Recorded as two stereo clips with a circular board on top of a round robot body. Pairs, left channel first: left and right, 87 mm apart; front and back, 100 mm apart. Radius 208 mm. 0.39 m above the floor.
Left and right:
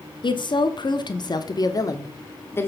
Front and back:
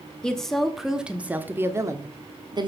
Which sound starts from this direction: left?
A woman speaking, at 0.2 s.